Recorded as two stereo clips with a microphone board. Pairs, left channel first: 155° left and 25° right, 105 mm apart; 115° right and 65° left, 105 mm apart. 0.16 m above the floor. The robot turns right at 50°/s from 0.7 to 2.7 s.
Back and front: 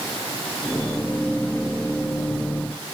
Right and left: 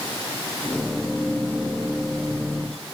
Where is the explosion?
I don't hear an explosion.